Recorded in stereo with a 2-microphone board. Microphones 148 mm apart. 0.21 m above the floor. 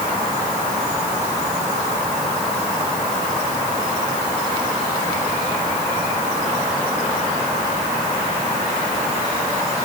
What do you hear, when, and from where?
Only background noise.